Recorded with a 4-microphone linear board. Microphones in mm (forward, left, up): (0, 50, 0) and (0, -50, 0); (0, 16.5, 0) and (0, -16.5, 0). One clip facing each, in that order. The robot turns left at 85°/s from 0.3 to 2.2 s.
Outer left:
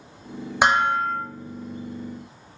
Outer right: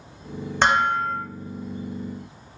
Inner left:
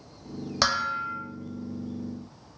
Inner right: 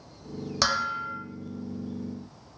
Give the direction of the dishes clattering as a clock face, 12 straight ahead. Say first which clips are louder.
Outer left 1 dB, inner left 1 dB; 7 o'clock.